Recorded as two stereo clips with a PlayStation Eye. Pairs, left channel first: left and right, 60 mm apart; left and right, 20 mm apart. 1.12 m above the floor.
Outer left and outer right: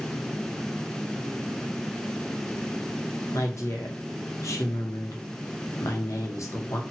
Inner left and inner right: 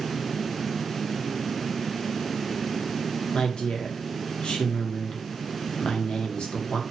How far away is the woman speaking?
About 0.7 m.